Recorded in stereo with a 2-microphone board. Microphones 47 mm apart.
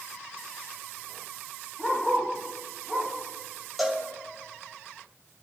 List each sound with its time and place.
1.8 s a dog barking: 10° left (ahead or behind), 7 m; by 3.1 s 5° left (ahead or behind), 7.5 m
3.8 s a cowbell: centre (ahead or behind), 2 m